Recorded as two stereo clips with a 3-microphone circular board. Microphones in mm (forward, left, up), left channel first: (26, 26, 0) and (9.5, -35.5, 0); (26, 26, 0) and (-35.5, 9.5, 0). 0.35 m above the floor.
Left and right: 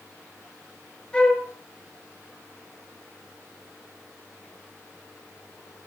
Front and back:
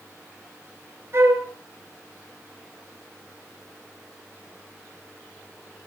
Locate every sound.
1.1 s a flute: 150° left, 2.5 m